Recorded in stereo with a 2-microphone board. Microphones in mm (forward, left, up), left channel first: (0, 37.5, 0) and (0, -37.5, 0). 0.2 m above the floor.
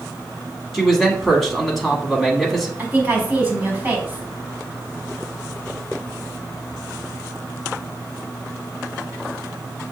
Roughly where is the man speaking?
Centre.